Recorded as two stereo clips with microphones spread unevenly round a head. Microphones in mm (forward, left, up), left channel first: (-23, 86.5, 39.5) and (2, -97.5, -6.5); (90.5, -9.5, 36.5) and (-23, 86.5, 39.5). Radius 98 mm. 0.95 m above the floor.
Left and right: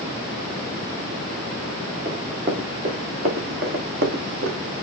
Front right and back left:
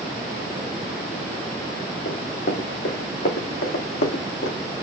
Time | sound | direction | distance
2.0 | running footsteps | 35° right | 5.5 m